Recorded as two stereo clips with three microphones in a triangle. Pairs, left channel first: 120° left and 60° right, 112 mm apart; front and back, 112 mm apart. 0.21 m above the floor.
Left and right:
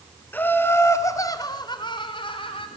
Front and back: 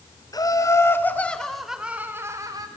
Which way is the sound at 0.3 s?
50° left.